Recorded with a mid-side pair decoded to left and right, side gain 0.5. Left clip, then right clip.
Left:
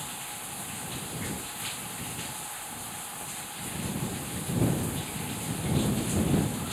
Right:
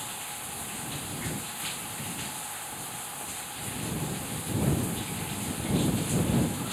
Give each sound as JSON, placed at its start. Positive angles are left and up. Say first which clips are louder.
{"t": 0.0, "sound": "running water", "louder": "right 1 dB", "azimuth_deg": -5}